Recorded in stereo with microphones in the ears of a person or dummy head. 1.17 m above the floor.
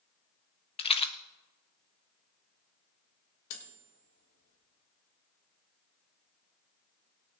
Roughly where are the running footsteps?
No running footsteps in this recording.